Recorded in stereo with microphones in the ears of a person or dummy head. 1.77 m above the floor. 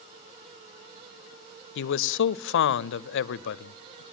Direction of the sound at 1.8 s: 65° left (ahead or behind).